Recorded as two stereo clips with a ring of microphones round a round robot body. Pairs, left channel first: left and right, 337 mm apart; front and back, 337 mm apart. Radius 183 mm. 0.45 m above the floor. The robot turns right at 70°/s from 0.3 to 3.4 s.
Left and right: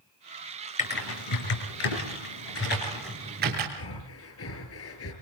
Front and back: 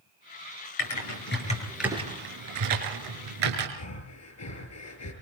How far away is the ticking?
I don't hear ticking.